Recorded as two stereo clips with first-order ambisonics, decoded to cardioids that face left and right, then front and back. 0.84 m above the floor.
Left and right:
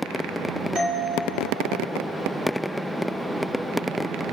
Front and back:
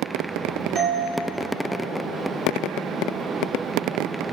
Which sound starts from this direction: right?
A doorbell, at 0.8 s.